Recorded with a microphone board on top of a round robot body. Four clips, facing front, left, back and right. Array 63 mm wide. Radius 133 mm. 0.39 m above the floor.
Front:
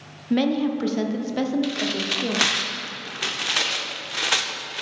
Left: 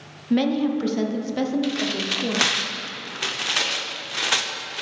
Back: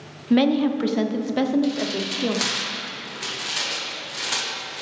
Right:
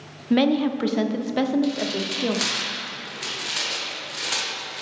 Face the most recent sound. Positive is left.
turn(degrees=45)